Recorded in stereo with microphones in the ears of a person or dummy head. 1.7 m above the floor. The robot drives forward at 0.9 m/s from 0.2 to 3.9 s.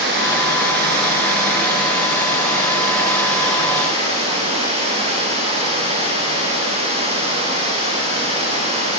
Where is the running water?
65° right (ahead or behind), 4 m; by 9.0 s 40° right (ahead or behind), 5.5 m.